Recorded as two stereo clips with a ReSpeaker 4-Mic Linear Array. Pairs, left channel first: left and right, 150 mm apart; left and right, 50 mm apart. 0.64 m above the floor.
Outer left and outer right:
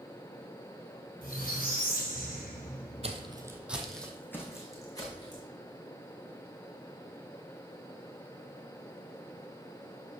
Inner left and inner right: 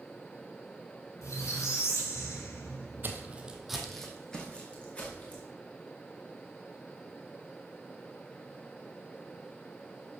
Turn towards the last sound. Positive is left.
turn(degrees=30)  # may be behind; listen again after turning